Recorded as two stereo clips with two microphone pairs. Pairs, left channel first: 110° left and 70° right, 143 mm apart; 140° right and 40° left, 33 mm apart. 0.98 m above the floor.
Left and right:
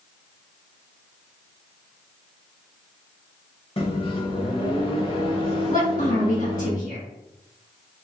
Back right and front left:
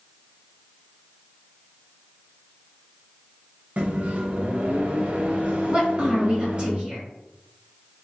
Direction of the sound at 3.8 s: 70° left.